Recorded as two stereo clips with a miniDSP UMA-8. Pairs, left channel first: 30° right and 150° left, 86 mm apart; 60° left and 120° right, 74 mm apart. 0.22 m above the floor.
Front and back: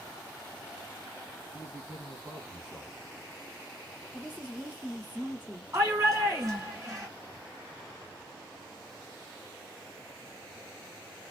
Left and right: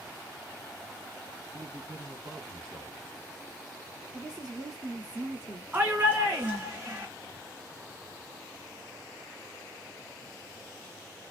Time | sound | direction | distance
1.5 | a man speaking | 125° right | 1.7 m
4.1 | a woman speaking | 140° right | 2.5 m
5.7 | a shout | 175° right | 1.9 m